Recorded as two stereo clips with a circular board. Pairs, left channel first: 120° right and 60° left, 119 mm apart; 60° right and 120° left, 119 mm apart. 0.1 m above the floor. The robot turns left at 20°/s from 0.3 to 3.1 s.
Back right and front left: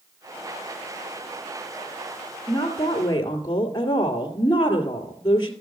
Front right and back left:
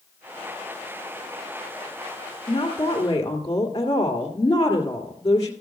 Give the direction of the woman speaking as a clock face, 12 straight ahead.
2 o'clock.